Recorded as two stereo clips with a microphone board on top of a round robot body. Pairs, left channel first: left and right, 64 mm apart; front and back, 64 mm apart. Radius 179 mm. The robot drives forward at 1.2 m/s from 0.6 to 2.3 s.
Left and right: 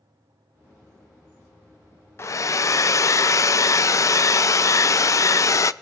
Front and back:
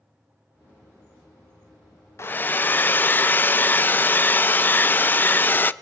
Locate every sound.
2.2 s a hair dryer: 45° left, 0.5 m; by 5.7 s 55° left, 0.5 m